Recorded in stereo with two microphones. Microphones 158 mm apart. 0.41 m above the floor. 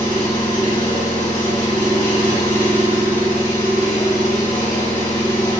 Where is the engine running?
70° left (ahead or behind), 1.5 m.